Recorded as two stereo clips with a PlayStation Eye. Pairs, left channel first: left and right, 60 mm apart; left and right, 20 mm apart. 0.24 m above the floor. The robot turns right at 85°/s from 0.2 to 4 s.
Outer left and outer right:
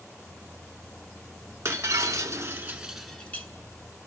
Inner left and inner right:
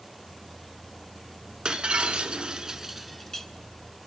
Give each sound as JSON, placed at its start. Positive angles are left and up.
{"t": 1.6, "sound": "breaking glass", "azimuth_deg": -120, "distance_m": 0.8}